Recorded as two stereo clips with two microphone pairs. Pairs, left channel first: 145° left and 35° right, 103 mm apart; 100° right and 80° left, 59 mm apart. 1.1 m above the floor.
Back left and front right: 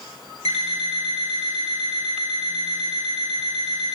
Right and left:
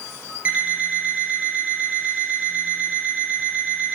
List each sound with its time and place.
0.5 s an alarm clock: 150° left, 4.5 m